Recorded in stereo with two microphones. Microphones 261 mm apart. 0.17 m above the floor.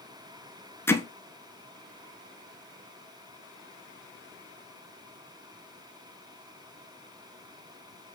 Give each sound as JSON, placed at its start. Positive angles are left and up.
{"t": 0.9, "sound": "hammering", "side_deg": 10, "distance_m": 0.5}